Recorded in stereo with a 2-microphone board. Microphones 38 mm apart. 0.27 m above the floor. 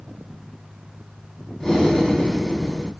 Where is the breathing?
5° left (ahead or behind), 0.8 m.